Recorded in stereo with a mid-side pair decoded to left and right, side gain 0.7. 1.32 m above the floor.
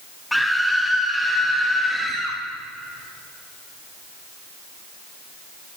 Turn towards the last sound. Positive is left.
turn(degrees=0)